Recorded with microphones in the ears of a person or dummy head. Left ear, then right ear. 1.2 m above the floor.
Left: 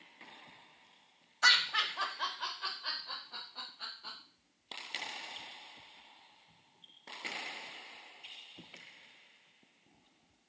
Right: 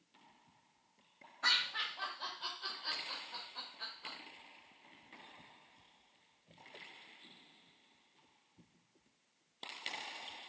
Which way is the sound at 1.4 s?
85° left.